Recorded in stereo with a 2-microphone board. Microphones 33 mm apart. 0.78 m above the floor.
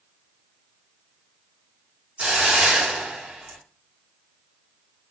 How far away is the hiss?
About 3.5 m.